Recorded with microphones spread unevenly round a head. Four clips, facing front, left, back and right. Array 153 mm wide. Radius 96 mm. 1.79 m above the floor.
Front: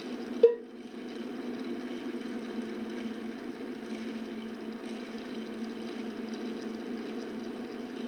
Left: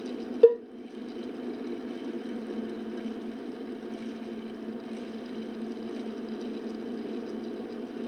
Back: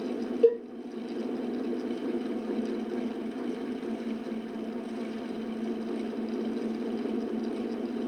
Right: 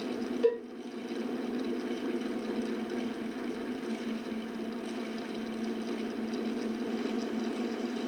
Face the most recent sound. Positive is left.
turn(degrees=85)